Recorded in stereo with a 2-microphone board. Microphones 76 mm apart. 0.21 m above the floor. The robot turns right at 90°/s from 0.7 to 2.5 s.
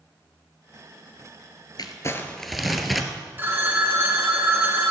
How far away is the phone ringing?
About 1.7 m.